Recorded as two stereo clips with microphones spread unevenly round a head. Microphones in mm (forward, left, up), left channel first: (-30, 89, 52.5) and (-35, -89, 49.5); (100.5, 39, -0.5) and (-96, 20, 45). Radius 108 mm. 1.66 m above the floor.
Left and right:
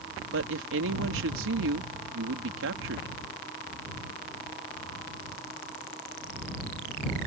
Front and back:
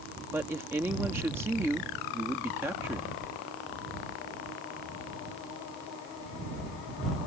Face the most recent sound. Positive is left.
turn(degrees=-95)